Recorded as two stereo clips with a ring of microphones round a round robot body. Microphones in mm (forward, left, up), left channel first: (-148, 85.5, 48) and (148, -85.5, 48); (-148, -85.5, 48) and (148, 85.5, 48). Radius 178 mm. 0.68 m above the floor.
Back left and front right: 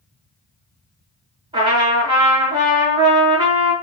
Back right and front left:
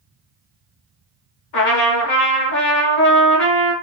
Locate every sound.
1.5 s a trumpet: 105° right, 1.1 m